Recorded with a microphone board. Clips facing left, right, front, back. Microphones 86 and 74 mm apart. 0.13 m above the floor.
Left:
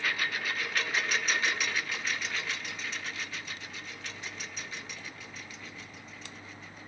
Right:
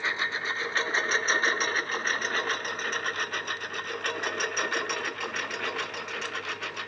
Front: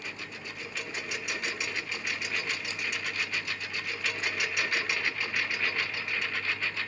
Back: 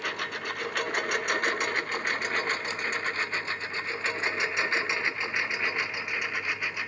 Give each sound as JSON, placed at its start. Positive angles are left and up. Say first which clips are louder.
{"t": 0.0, "sound": "a lawn mower", "louder": "right 2 dB, back 8 dB", "azimuth_deg": -155}